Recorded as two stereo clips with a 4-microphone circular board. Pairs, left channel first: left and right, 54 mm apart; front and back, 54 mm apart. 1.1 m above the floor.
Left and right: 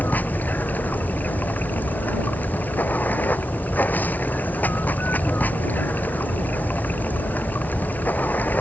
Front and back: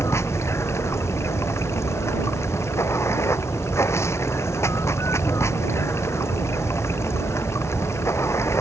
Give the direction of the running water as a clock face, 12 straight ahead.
11 o'clock.